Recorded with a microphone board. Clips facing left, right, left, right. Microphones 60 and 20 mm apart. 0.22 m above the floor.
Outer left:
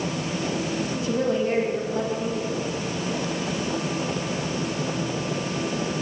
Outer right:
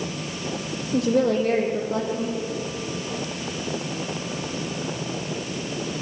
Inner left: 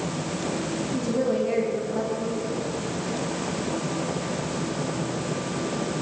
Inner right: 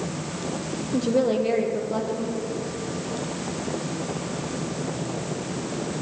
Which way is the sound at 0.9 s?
75° right (ahead or behind).